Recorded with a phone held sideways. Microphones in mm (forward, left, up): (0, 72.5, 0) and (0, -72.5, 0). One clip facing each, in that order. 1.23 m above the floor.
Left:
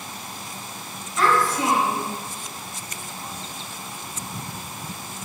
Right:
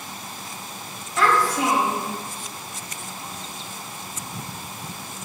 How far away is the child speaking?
About 1.7 m.